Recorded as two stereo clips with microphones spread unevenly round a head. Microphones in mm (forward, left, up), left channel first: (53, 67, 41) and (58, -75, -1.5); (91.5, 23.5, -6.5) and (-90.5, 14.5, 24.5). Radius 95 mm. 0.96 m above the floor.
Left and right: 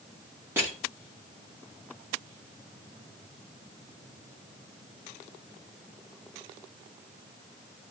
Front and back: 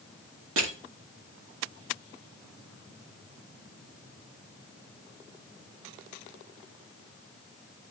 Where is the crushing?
160° right, 2.5 m.